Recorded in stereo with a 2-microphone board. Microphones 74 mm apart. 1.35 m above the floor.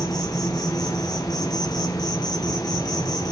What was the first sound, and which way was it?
An insect, 60° left (ahead or behind).